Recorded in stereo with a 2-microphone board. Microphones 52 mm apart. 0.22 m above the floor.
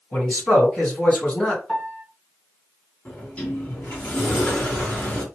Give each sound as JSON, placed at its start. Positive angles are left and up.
{"t": 0.1, "sound": "a man speaking", "side_deg": 10, "distance_m": 2.5}
{"t": 1.7, "sound": "a piano", "side_deg": 15, "distance_m": 1.5}
{"t": 3.0, "sound": "a sliding door", "side_deg": 20, "distance_m": 2.0}